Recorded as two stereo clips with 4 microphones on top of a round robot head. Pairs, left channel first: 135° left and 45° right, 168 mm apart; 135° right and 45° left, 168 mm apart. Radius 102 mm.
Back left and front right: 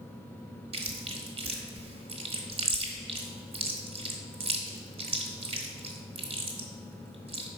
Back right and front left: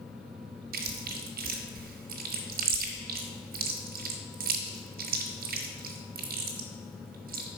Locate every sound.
0.7 s chewing: 10° left, 1.2 m